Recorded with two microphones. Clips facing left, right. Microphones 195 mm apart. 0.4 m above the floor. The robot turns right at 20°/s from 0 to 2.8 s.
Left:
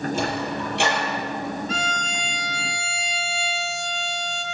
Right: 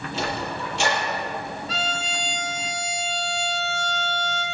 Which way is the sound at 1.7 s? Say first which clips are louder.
Left 1 dB; 50° left (ahead or behind).